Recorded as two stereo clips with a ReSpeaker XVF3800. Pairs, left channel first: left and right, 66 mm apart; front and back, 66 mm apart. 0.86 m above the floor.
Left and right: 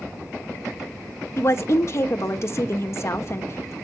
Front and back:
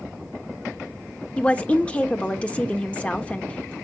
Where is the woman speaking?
65° left, 1.1 m.